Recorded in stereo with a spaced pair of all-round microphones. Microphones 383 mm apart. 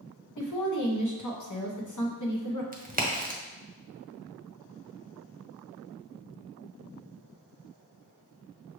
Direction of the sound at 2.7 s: 20° right (ahead or behind).